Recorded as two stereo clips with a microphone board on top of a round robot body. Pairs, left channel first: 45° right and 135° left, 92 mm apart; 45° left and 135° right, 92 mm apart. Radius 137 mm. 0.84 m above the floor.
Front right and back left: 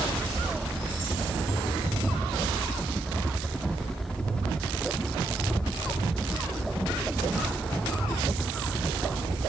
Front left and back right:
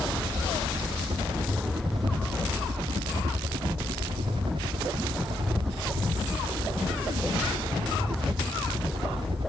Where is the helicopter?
125° right.